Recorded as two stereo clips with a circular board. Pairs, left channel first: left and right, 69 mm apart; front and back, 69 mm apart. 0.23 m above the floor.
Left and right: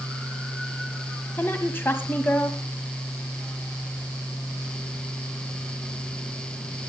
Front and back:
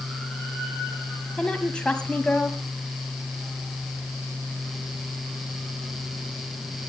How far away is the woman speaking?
About 1.3 m.